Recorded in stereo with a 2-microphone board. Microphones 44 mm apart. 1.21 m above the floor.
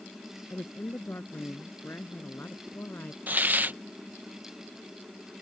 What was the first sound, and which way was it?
A woman speaking, 65° left (ahead or behind).